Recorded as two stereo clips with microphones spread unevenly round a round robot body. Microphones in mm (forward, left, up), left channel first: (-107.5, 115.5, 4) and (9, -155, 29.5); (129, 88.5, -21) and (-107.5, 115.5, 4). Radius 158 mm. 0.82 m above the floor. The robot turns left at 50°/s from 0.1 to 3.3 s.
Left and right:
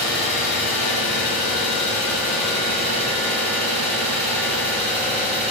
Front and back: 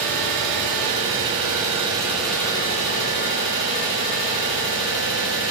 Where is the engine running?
170° right, 1.7 m; by 5.5 s 30° left, 1.7 m.